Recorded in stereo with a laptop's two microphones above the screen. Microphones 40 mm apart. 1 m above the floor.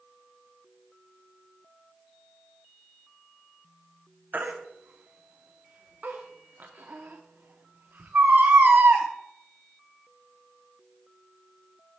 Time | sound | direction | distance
4.3 | a baby crying | 45° right (ahead or behind) | 0.8 m